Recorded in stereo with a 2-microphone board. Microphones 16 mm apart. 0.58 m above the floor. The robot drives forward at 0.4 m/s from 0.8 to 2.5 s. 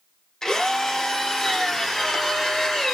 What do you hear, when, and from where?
0.4 s a drill: 45° left (ahead or behind), 1.7 m; by 3.0 s 35° left (ahead or behind), 2 m